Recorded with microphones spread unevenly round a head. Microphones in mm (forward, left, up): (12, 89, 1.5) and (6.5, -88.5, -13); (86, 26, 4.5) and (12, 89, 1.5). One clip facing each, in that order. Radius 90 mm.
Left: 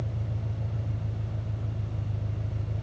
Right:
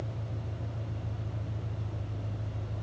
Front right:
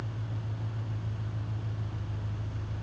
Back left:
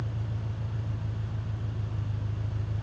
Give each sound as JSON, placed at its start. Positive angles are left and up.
{"t": 0.0, "sound": "an engine running", "azimuth_deg": 100, "distance_m": 4.0}